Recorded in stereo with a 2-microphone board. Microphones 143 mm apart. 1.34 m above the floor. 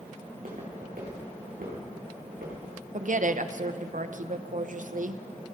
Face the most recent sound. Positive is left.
turn(degrees=-65)  # may be behind; listen again after turning